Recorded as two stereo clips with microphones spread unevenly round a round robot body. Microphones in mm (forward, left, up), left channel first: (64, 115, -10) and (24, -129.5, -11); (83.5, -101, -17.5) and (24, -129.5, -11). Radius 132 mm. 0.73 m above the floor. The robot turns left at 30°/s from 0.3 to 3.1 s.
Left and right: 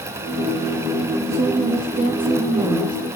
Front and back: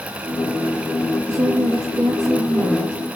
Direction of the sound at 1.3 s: 135° right.